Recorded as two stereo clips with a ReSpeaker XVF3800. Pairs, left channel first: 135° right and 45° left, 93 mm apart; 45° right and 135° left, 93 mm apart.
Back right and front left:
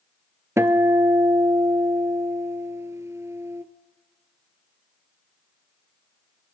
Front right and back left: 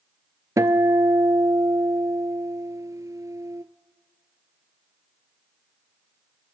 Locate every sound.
0.6 s a guitar: 95° left, 0.6 m